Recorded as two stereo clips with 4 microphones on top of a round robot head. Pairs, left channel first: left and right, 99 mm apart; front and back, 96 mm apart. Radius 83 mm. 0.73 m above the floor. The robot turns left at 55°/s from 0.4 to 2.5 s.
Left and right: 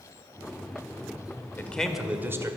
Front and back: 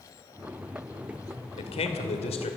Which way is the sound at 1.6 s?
20° left.